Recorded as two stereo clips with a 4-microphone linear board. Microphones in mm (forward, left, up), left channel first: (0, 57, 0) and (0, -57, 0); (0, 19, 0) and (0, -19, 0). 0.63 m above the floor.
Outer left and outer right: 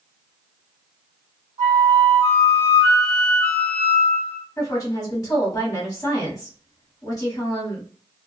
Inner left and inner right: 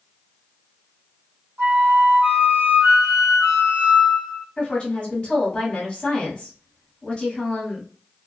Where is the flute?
75° right (ahead or behind), 1.3 m.